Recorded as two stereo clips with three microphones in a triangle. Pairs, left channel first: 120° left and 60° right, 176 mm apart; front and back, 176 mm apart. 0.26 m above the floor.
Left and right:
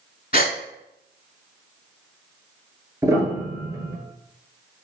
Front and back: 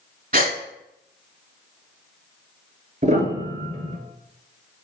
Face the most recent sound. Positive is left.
turn(degrees=-135)